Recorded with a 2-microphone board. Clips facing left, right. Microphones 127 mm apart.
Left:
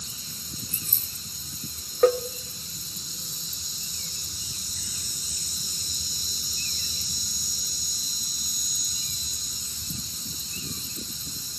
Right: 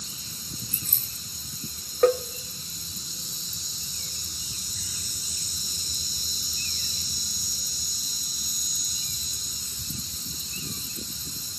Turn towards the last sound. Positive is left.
turn(degrees=5)  # may be behind; listen again after turning